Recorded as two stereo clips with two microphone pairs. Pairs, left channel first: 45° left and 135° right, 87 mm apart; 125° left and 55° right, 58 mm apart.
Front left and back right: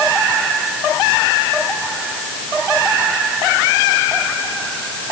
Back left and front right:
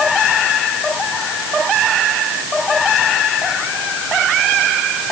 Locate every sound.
Only background noise.